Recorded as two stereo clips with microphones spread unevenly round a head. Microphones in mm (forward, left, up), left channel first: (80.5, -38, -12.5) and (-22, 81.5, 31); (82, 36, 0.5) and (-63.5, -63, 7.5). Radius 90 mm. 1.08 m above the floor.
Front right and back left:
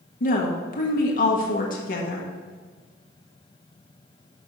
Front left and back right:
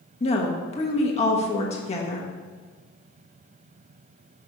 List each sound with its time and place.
0.2 s a woman speaking: 20° right, 1.2 m